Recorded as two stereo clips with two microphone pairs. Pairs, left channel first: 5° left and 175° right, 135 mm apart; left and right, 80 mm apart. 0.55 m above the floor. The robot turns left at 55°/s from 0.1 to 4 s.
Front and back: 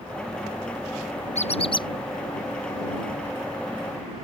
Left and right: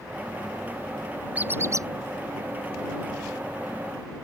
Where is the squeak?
20° right; by 1.9 s 50° right.